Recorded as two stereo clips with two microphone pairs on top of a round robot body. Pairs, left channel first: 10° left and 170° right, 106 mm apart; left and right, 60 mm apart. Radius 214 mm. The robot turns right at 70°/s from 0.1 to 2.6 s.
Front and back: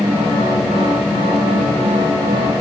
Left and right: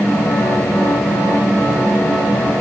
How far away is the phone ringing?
No phone ringing in this recording.